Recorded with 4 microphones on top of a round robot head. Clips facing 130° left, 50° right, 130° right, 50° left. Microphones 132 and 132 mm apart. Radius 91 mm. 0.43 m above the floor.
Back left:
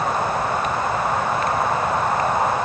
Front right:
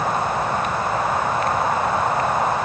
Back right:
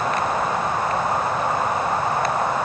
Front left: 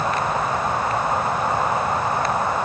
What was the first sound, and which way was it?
Only background noise.